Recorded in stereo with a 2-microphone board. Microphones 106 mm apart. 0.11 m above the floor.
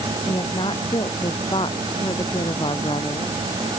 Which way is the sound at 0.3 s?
55° left (ahead or behind).